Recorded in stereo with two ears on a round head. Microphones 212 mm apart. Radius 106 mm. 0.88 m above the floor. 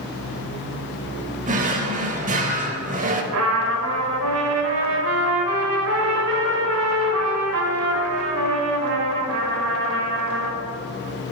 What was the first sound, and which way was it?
A drawer, 35° right (ahead or behind).